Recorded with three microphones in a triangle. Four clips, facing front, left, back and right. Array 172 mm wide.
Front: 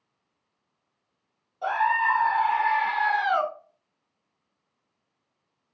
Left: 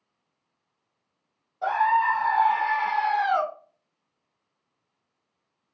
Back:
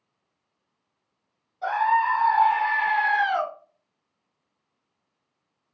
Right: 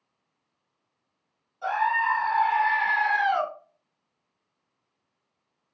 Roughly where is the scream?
Left.